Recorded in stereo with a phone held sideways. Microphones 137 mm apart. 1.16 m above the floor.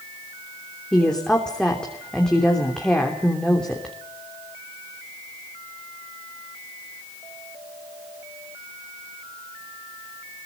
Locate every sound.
0.9 s a woman speaking: 5° left (ahead or behind), 3 m